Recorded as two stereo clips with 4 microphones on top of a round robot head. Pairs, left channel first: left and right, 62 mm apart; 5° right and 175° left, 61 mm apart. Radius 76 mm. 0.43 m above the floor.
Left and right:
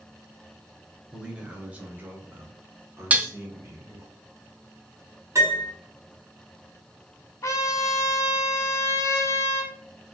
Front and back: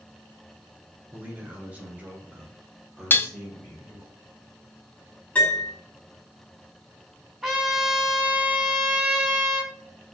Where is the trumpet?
90° left, 1.4 m.